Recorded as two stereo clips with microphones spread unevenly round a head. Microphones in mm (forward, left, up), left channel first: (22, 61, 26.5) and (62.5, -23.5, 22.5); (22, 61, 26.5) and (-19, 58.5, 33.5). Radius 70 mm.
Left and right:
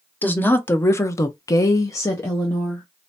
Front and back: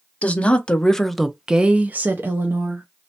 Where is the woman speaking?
45° left, 1.0 m; by 2.8 s 175° right, 1.0 m.